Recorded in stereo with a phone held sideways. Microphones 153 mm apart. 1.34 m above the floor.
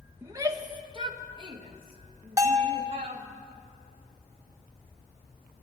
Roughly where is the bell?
Right.